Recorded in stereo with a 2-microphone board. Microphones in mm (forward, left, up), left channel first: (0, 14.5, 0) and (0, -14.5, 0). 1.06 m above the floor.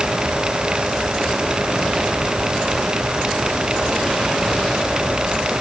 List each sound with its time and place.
Only background noise.